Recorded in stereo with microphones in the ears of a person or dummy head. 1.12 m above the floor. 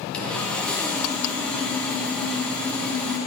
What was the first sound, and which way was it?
Sawing, 5° left (ahead or behind).